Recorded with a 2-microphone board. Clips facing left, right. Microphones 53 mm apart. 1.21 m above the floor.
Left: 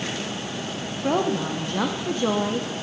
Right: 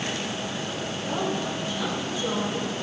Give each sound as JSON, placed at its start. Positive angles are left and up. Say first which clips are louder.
{"t": 1.0, "sound": "a woman speaking", "louder": "left 6 dB", "side_deg": 55, "distance_m": 0.8}